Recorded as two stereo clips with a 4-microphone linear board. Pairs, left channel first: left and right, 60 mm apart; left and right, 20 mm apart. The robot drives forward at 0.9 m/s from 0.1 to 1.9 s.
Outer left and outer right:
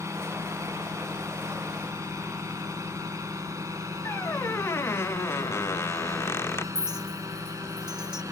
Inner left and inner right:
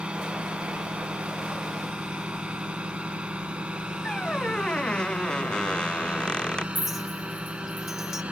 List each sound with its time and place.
0.0 s a drone: 65° right (ahead or behind); by 8.3 s 75° right (ahead or behind)
4.0 s a squeak: 50° left (ahead or behind)
6.8 s a clink: 15° right (ahead or behind)